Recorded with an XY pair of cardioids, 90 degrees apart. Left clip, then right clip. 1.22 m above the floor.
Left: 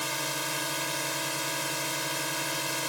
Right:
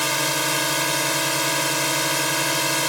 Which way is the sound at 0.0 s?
70° right.